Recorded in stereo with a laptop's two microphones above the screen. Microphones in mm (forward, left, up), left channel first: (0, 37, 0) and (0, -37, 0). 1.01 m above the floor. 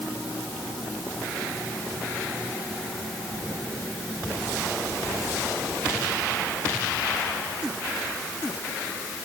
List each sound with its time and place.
Only background noise.